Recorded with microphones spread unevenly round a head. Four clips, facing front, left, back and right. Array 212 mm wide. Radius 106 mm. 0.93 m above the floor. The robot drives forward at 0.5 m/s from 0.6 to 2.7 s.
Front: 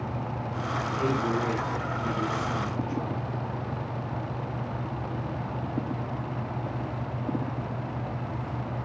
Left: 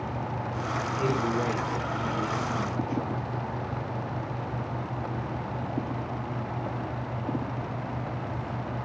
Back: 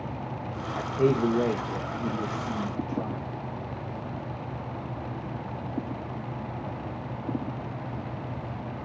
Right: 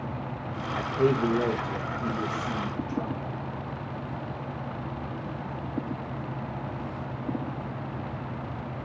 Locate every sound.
0.8 s a man speaking: 140° right, 0.6 m; by 3.3 s 170° right, 1.4 m